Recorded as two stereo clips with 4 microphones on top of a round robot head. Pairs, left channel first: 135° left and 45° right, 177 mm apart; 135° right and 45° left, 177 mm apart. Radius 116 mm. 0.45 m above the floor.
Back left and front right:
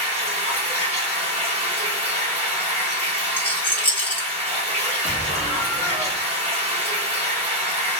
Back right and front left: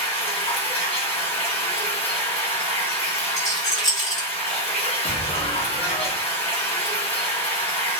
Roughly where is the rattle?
Behind right.